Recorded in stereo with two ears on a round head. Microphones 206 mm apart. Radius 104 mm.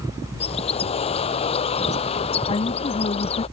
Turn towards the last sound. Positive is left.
turn(degrees=25)  # may be behind; listen again after turning